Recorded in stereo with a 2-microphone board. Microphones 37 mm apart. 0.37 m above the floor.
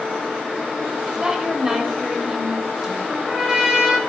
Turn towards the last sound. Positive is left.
turn(degrees=-20)  # may be behind; listen again after turning